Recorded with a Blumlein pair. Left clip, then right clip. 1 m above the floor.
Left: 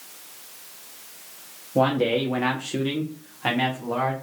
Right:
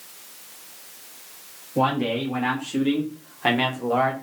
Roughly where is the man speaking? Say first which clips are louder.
Left 2 dB; ahead left.